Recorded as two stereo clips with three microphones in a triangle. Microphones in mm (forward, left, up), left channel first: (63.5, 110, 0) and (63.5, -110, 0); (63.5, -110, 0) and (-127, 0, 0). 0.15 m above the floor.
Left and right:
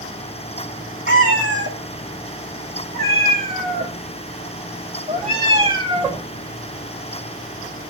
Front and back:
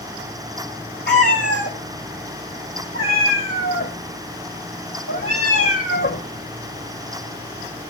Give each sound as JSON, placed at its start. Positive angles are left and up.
{"t": 1.1, "sound": "a cat meowing", "azimuth_deg": -65, "distance_m": 4.0}